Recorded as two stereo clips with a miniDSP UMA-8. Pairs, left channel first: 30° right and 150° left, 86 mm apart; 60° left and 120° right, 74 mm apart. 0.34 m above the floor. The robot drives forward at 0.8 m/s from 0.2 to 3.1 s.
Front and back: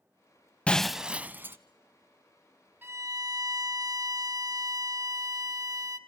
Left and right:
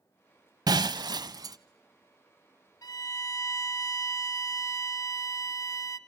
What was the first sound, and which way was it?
Breaking glass, 105° right.